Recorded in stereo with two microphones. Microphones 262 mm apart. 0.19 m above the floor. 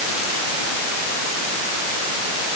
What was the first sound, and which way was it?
Only background noise.